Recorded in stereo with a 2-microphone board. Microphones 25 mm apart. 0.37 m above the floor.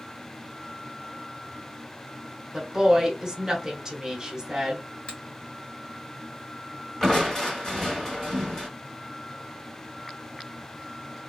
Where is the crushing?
15° left (ahead or behind), 1.0 m.